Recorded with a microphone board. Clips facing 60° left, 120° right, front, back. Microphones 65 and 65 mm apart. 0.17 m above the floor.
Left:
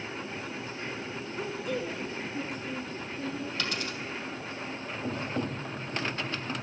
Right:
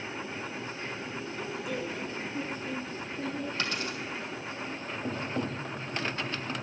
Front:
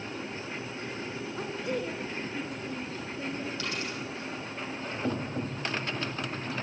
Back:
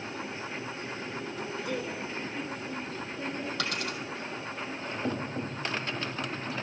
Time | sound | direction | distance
1.4 | a woman speaking | 15° right | 1.4 m
3.6 | a dropped coin | straight behind | 2.5 m